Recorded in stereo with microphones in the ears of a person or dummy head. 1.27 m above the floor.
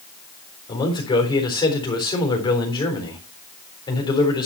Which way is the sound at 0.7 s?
20° left (ahead or behind).